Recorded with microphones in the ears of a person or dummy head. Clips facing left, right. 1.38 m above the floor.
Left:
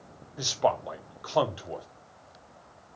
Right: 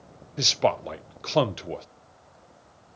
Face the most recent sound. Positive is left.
turn(degrees=-30)  # may be behind; listen again after turning